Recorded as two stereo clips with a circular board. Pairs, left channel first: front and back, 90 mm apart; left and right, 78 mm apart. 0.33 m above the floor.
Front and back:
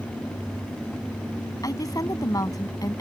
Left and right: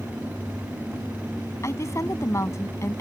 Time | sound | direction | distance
1.6 | a woman speaking | 40° left | ?